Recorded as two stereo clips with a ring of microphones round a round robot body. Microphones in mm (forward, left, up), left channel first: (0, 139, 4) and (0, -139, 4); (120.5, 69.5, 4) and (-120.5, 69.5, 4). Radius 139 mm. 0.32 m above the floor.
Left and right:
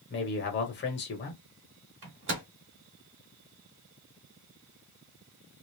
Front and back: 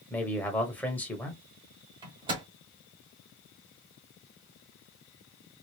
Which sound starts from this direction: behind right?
A microwave, at 2.0 s.